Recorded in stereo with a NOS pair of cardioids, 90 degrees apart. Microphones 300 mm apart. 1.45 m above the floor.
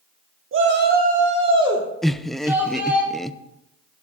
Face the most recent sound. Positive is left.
turn(degrees=0)